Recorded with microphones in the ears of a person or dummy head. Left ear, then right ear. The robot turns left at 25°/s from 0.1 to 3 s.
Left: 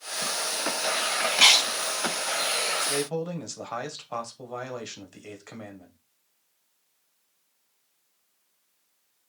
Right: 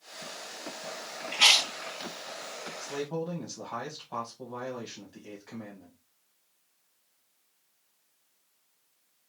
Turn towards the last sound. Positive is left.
turn(degrees=65)  # may be behind; listen again after turning